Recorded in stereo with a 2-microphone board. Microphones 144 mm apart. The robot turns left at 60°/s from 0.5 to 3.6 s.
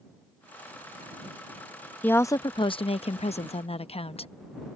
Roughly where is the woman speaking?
Behind.